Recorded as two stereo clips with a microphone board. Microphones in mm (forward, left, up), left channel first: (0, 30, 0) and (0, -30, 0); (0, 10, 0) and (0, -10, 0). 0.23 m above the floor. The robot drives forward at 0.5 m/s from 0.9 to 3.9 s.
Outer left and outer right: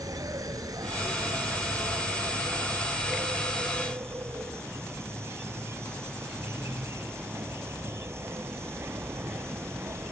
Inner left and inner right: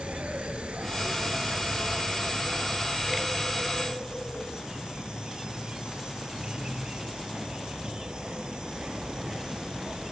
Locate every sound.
0.0 s an insect: 75° right (ahead or behind); by 10.1 s 45° right (ahead or behind)